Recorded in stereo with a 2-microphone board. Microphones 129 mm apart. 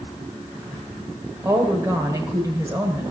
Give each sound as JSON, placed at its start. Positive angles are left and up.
{"t": 1.4, "sound": "a woman speaking", "side_deg": -25, "distance_m": 1.2}